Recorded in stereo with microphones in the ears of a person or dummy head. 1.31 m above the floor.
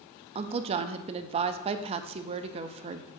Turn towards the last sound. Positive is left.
turn(degrees=-35)  # may be behind; listen again after turning